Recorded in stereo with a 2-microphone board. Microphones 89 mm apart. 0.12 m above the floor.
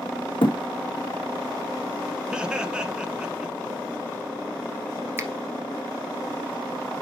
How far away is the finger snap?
About 1.5 m.